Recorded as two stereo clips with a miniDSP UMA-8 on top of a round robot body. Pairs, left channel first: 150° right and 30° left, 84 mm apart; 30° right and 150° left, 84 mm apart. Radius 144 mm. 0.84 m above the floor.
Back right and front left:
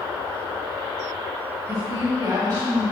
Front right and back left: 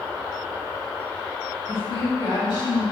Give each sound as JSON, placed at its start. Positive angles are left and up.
{"t": 1.7, "sound": "a woman speaking", "azimuth_deg": -15, "distance_m": 2.5}